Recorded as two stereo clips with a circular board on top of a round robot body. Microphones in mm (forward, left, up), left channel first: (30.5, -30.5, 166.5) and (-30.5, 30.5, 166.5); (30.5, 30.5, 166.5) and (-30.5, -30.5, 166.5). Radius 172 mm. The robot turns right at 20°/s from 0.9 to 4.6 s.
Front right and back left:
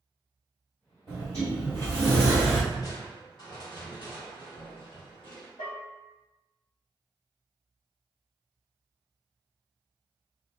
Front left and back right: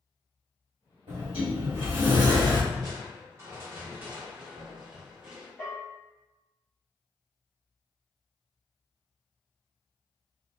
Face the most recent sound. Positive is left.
turn(degrees=-25)